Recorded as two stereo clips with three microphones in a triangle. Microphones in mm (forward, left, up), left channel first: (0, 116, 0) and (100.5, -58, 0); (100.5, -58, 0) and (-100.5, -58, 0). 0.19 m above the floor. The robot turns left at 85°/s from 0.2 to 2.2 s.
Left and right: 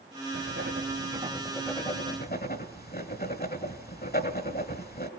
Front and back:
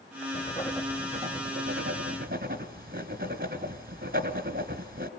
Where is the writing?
55° right, 1.4 m; by 5.1 s 150° left, 1.4 m.